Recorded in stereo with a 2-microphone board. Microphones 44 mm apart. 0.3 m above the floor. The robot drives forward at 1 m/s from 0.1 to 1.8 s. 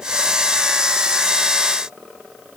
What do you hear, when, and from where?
Only background noise.